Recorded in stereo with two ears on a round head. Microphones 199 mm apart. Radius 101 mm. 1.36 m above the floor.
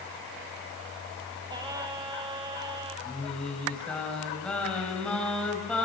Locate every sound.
1.5 s singing: 20° right (ahead or behind), 1.7 m
3.0 s singing: 5° left (ahead or behind), 4.5 m